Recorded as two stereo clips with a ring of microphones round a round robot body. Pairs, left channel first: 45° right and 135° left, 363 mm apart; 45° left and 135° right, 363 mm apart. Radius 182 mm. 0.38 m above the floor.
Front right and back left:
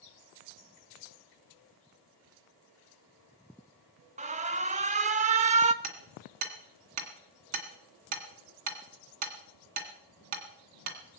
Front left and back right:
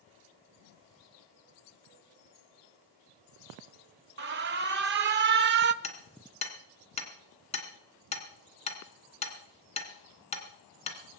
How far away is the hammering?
About 2 m.